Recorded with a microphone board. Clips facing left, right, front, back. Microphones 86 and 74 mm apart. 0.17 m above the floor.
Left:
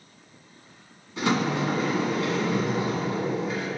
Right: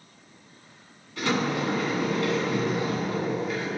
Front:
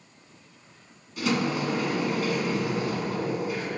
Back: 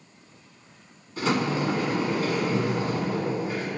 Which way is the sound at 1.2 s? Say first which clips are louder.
Left 1 dB, back 1 dB; 145° left.